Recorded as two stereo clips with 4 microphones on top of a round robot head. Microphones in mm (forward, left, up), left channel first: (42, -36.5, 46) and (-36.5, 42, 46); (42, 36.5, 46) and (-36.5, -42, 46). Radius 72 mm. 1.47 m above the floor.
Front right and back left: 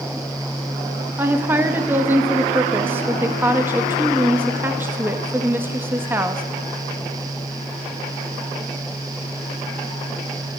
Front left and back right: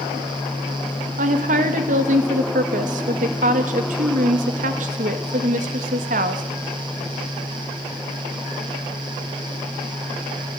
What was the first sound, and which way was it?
A woman speaking, 150° right.